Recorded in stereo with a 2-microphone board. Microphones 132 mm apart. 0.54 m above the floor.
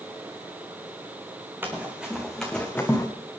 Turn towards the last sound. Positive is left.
turn(degrees=20)  # may be behind; listen again after turning